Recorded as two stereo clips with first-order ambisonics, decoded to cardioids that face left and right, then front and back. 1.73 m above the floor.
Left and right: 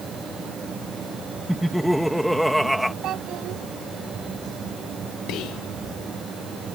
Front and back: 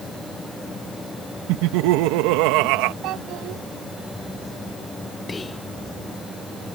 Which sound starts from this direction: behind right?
A child speaking, at 3.0 s.